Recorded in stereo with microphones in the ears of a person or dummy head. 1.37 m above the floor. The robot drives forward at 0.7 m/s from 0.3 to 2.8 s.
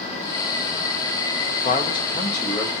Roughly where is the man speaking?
Left.